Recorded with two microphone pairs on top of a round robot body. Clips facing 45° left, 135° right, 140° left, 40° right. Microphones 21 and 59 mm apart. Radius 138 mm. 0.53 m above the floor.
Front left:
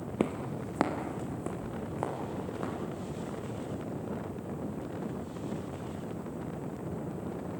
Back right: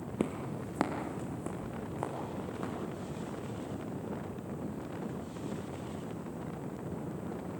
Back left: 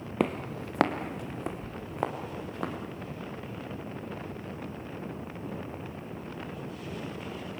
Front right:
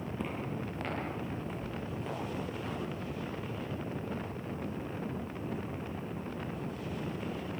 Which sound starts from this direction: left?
Footsteps, at 0.2 s.